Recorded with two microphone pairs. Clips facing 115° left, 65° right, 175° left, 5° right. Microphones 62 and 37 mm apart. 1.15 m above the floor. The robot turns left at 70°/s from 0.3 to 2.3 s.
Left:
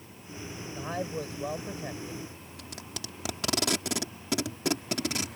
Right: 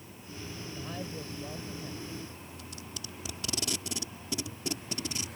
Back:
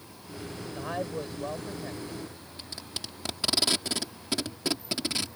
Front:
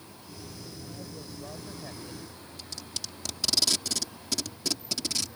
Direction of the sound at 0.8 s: 175° left.